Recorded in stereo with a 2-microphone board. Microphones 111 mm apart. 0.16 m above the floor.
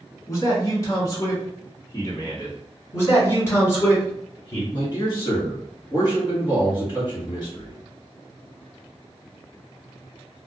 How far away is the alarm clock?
No alarm clock in this recording.